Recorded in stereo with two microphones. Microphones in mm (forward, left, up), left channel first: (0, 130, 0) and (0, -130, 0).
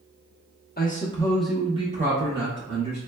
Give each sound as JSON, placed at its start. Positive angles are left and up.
{"t": 0.8, "sound": "a man speaking", "side_deg": 35, "distance_m": 0.7}